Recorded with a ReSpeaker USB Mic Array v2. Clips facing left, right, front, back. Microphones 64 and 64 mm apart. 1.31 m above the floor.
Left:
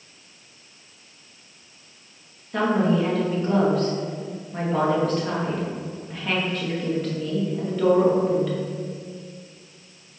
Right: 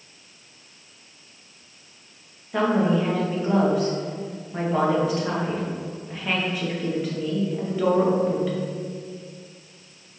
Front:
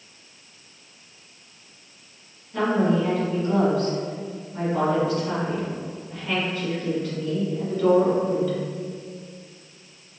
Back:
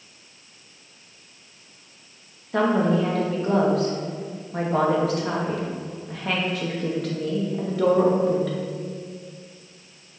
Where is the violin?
No violin in this recording.